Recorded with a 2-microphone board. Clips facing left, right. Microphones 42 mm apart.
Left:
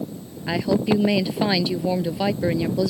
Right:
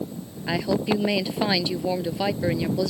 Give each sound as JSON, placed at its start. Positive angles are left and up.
{"t": 0.5, "sound": "a woman speaking", "side_deg": 5}